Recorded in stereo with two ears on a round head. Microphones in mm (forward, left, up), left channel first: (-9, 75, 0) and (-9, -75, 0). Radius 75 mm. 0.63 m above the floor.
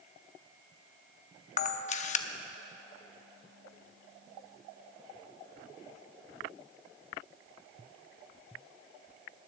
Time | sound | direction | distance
1.6 | a camera shutter | 45° left (ahead or behind) | 0.7 m